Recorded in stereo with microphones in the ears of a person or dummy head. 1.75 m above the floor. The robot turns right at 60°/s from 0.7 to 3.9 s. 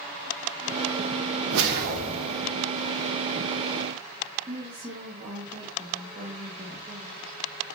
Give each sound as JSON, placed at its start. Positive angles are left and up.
{"t": 1.5, "sound": "a whoosh", "azimuth_deg": -70, "distance_m": 0.9}
{"t": 4.5, "sound": "a woman speaking", "side_deg": -15, "distance_m": 0.9}